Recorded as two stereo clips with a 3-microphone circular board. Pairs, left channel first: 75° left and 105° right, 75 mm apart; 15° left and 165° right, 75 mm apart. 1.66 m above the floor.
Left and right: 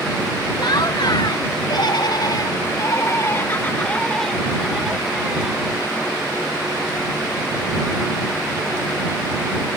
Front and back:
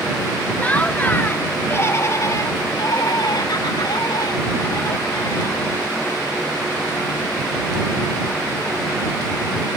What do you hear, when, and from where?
0.6 s laughter: 85° left; by 5.8 s 35° right